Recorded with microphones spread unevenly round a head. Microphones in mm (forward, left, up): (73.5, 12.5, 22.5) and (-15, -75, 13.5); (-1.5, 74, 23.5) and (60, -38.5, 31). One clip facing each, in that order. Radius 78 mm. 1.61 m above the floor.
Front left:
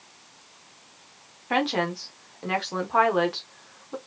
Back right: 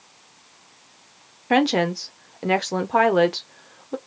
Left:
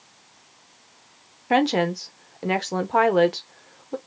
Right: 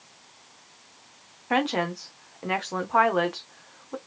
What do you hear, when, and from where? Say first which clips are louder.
1.5 s a woman speaking: back right 6 dB, left 5 dB; 175° left, 0.7 m